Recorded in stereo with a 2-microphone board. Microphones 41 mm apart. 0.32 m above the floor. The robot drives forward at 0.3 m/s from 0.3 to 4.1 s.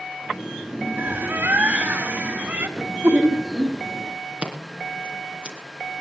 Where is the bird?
60° right (ahead or behind), 1.5 m; by 2.7 s 50° right (ahead or behind), 1.7 m.